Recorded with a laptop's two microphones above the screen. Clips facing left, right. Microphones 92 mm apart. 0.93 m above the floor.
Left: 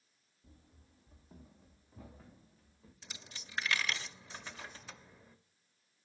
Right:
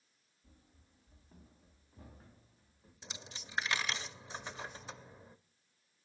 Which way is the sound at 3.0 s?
20° right (ahead or behind).